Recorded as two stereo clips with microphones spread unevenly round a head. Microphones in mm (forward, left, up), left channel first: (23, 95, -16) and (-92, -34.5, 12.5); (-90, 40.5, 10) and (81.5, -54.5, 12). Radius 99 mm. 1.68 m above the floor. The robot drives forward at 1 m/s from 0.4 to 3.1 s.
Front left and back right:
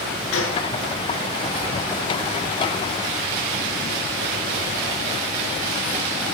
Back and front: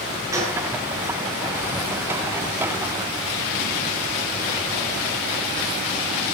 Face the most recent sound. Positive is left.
turn(degrees=65)